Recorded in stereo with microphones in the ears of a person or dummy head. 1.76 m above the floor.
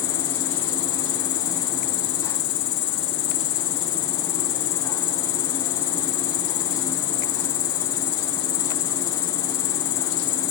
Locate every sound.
0.0 s an insect: 70° left (ahead or behind), 2.5 m